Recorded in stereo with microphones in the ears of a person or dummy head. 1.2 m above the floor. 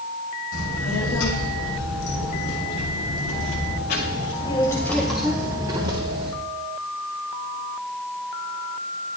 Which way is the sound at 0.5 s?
90° left.